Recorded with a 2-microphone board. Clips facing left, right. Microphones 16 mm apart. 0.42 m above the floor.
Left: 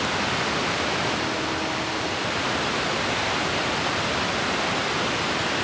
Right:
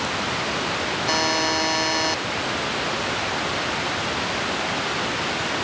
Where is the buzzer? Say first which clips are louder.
Right 5 dB; 70° right (ahead or behind).